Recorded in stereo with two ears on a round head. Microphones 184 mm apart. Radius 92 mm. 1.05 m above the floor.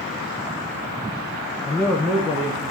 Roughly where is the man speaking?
Centre.